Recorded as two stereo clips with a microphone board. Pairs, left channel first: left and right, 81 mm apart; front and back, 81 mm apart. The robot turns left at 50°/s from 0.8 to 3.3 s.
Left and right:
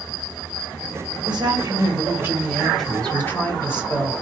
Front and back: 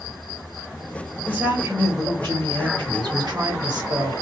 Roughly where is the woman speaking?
Right.